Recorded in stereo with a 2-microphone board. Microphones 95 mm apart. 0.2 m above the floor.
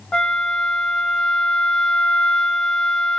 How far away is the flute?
About 0.9 m.